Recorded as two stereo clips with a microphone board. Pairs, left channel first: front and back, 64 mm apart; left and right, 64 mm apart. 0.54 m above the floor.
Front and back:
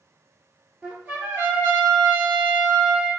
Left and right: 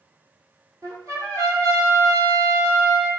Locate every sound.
0.8 s a trumpet: 115° right, 1.6 m